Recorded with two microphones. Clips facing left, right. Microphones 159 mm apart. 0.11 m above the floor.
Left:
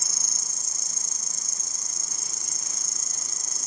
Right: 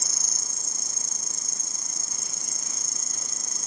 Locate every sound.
0.0 s an insect: 55° right (ahead or behind), 1.1 m